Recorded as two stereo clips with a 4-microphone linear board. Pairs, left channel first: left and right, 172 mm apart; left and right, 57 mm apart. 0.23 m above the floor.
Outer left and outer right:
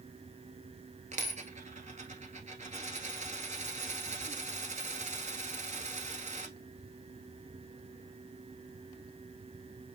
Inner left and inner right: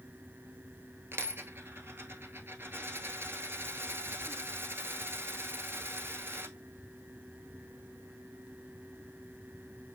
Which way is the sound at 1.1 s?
45° right (ahead or behind).